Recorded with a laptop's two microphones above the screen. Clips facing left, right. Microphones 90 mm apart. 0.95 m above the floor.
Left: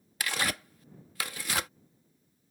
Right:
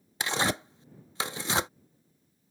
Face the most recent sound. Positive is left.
turn(degrees=-25)  # may be behind; listen again after turning